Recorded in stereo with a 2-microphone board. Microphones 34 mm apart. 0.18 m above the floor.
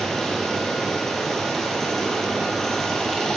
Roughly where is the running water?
Centre.